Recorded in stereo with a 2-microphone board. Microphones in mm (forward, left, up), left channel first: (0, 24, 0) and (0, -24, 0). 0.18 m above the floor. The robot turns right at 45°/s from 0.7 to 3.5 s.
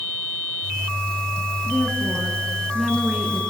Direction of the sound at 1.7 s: 140° left.